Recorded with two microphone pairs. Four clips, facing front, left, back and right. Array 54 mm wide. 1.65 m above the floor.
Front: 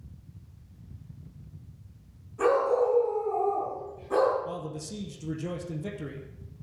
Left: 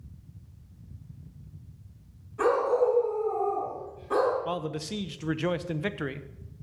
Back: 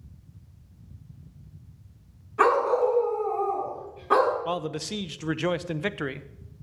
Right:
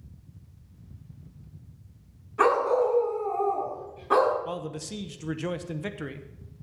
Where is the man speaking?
150° left, 0.8 m.